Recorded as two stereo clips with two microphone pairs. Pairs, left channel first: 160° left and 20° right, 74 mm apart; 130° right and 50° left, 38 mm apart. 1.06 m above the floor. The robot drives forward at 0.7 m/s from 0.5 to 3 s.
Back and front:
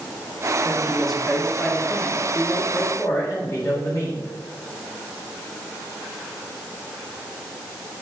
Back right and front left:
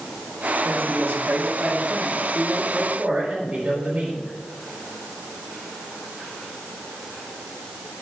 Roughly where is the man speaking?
Ahead left.